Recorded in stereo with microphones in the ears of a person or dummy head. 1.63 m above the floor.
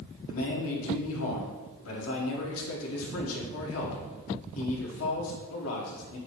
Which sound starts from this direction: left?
A man speaking, at 0.3 s.